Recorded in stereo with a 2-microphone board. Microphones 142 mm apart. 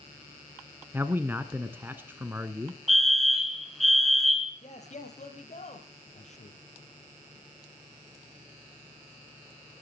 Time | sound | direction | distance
0.9 | a man speaking | 15° right (ahead or behind) | 1.1 m
2.9 | a fire alarm | centre (ahead or behind) | 2.5 m
4.6 | a man speaking | 55° left (ahead or behind) | 3.5 m